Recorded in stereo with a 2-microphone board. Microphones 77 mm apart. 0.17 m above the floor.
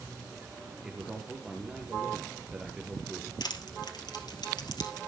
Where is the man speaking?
10° right (ahead or behind), 3 m.